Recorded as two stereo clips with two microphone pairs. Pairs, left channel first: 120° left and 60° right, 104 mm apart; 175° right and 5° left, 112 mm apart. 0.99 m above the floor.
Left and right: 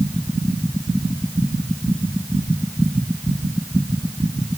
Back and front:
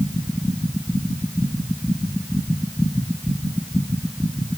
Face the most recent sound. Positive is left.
No sound to turn to.